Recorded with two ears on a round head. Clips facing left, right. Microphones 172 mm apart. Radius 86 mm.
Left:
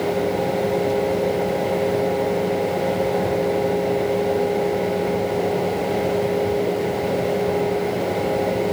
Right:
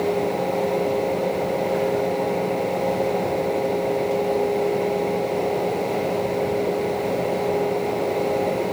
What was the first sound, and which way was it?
Only background noise.